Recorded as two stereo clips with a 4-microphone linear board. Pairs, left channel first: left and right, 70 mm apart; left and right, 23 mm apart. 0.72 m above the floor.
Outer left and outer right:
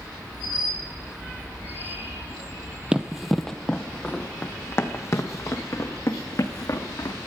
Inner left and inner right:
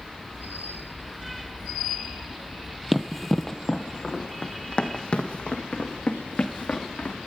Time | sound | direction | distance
2.9 | running footsteps | 15° right (ahead or behind) | 0.8 m